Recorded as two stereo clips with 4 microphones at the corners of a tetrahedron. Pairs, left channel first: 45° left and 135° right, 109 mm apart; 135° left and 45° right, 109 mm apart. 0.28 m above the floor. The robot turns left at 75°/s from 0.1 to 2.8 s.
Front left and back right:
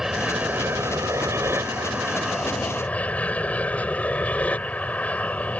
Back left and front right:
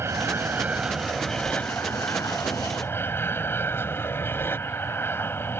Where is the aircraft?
55° right; by 5.6 s 100° left.